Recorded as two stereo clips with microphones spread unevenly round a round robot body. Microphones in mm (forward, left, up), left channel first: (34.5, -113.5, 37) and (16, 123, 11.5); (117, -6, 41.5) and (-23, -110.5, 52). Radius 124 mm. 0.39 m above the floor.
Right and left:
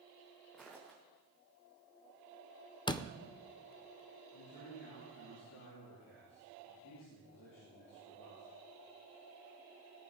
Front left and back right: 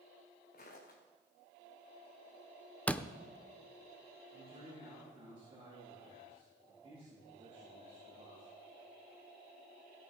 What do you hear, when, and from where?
0.5 s footsteps: 5° left, 3 m
2.9 s a door slam: 25° right, 0.5 m
4.3 s a man speaking: 90° right, 6.5 m